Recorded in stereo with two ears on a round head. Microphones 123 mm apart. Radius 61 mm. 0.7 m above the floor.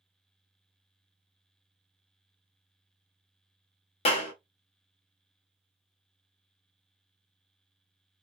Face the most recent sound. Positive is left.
turn(degrees=45)  # may be behind; listen again after turning